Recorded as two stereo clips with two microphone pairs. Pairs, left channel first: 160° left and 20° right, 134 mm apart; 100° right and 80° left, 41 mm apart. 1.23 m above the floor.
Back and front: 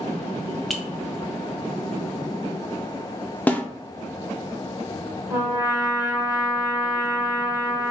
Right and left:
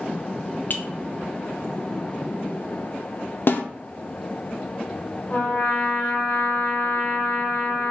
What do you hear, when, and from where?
0.7 s a clink: 110° right, 0.6 m
3.5 s a snare drum: 120° right, 0.5 m
5.3 s a trumpet: 65° right, 1.3 m